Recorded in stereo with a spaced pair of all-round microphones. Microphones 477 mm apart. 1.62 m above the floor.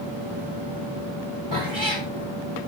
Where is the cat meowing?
70° left (ahead or behind), 3.5 m.